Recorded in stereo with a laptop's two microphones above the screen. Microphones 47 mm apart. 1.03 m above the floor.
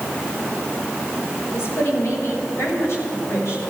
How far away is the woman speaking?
About 6 m.